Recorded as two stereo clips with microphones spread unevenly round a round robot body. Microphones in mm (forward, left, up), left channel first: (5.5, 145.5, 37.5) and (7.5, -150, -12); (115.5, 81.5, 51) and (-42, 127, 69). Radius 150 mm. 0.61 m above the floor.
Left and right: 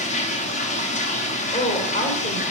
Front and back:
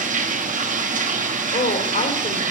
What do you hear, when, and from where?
0.0 s running water: 160° left, 1.0 m
1.5 s a woman speaking: 15° left, 2.5 m